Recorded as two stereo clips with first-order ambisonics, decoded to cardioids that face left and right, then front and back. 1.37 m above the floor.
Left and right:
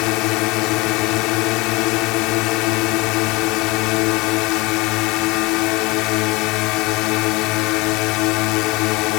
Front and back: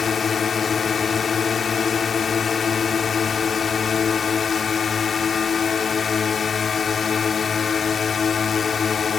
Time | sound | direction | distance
0.0 | a drone | 70° left | ?